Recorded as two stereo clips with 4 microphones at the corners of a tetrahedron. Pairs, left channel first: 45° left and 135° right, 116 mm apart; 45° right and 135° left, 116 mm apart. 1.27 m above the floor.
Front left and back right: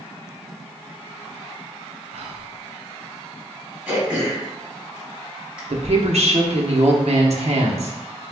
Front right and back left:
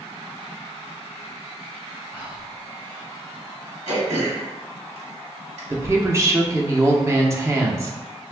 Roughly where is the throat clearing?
Behind left.